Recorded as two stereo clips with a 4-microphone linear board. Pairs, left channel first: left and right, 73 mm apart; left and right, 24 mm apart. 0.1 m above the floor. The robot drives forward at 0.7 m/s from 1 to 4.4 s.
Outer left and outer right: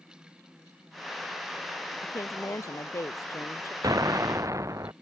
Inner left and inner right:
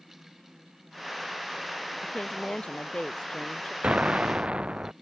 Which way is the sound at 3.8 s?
60° right (ahead or behind).